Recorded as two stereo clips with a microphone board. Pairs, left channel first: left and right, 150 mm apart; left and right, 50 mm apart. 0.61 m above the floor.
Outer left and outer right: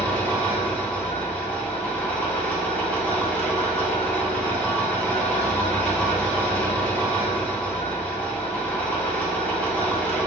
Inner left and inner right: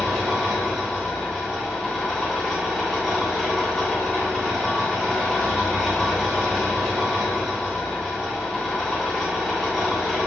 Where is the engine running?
10° left (ahead or behind), 0.7 m.